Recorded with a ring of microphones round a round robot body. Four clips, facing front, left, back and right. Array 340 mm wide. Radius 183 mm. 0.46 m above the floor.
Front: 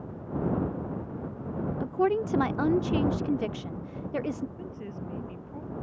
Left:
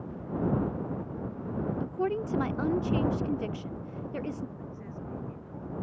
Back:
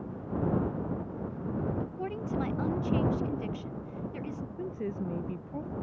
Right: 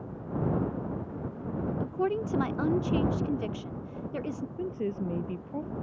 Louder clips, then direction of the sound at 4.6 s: Right 10 dB, back 4 dB; 110° right.